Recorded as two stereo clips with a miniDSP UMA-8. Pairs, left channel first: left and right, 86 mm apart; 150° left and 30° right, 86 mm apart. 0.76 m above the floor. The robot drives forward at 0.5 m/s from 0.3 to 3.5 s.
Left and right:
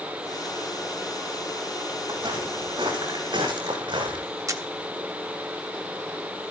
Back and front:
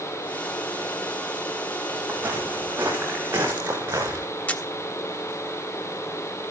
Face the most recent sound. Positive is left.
turn(degrees=-135)